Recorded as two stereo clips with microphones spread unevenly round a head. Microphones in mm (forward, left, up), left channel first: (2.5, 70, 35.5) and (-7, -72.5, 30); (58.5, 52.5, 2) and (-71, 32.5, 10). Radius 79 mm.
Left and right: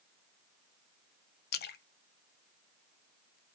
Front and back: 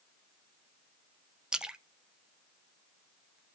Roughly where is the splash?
Left.